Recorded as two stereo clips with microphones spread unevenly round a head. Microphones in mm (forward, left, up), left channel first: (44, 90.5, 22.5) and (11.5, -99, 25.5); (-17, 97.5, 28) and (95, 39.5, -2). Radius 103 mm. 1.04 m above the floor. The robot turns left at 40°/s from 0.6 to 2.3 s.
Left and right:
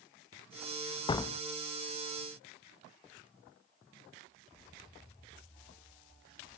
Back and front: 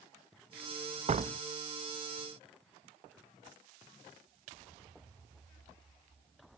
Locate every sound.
1.1 s a door slam: 15° left, 0.6 m; by 1.4 s straight ahead, 0.6 m